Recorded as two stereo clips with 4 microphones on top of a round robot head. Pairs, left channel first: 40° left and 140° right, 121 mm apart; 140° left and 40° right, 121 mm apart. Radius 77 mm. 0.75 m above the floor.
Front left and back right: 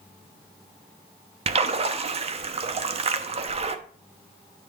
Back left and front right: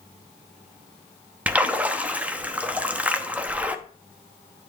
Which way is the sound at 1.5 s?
115° right.